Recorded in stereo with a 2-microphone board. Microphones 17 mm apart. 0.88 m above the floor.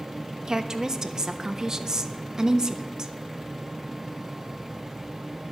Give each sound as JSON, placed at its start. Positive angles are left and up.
{"t": 0.5, "sound": "a woman speaking", "side_deg": -40, "distance_m": 1.0}